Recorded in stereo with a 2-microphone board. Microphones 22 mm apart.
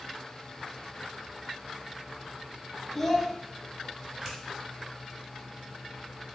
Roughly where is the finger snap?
Right.